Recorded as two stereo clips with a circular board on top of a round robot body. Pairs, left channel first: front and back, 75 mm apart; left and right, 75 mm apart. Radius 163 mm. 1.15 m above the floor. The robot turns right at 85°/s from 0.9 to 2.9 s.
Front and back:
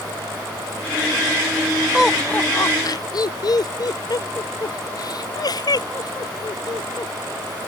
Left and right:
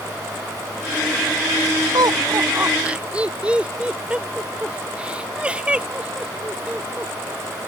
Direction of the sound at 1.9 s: 100° right.